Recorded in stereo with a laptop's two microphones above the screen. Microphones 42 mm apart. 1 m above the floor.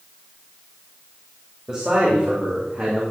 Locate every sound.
1.7 s a man speaking: 30° right (ahead or behind), 2.5 m; by 3.0 s 45° right (ahead or behind), 2.5 m